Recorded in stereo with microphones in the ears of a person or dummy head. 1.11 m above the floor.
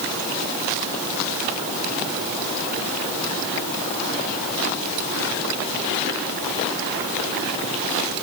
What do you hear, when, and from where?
Only background noise.